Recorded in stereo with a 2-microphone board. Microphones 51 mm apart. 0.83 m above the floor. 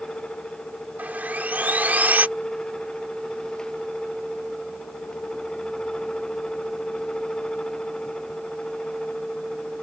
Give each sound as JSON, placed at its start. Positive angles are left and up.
{"t": 1.0, "sound": "sawing", "side_deg": -35}